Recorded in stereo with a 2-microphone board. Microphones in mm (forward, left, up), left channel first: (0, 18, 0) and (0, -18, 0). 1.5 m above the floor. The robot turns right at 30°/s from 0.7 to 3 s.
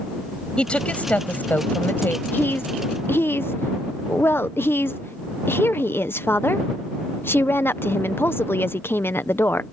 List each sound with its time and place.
0.6 s a woman speaking: 30° left; by 2.2 s 75° left
2.3 s a woman speaking: 60° left (ahead or behind); by 9.6 s 80° left